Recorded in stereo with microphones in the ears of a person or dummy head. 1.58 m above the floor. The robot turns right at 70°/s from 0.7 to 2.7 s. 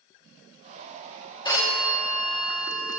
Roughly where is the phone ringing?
Behind left.